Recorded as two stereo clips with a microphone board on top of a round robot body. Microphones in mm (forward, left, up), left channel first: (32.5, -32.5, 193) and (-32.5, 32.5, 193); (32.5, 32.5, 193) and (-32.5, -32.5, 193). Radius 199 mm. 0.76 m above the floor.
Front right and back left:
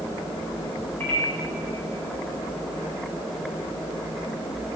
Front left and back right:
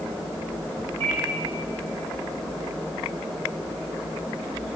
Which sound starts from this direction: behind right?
A microwave, at 1.0 s.